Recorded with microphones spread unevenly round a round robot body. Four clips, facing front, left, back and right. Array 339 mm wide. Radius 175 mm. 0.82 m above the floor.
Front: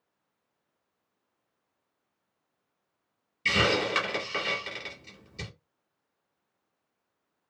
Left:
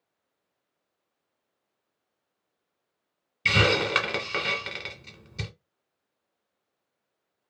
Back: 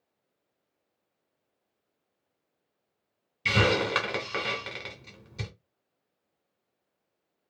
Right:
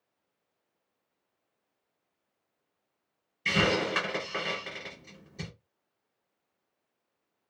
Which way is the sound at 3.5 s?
100° left.